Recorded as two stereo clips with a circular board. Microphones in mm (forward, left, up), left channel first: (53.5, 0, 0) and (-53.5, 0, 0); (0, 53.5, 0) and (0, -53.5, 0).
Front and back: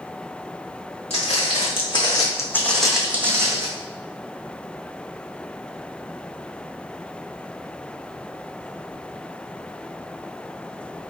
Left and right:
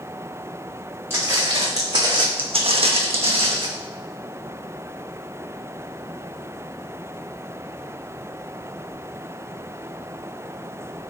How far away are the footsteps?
About 1.0 m.